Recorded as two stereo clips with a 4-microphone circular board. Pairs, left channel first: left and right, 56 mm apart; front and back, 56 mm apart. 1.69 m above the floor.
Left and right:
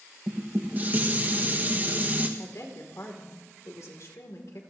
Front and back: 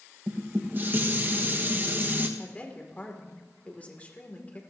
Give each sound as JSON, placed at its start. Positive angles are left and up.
{"t": 0.3, "sound": "dishes clattering", "azimuth_deg": -140, "distance_m": 1.3}
{"t": 2.4, "sound": "a woman speaking", "azimuth_deg": 60, "distance_m": 2.5}